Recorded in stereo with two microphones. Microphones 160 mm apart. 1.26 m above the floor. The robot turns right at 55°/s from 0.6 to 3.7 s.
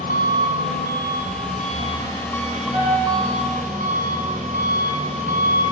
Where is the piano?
30° right (ahead or behind), 5 m; by 3.2 s 5° right (ahead or behind), 5 m.